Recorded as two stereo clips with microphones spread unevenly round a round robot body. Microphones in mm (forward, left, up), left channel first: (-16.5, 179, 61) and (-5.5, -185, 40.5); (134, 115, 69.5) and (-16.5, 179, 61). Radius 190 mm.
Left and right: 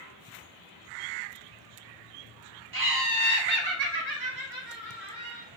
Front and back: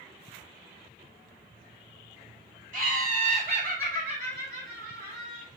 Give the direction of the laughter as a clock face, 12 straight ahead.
4 o'clock.